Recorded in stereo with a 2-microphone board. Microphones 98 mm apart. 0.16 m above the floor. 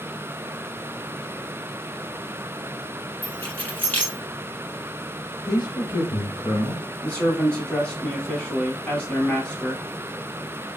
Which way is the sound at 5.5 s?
30° left (ahead or behind).